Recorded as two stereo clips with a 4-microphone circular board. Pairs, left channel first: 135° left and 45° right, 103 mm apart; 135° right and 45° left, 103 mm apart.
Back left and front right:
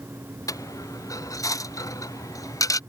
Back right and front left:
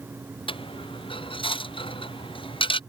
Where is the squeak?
No squeak in this recording.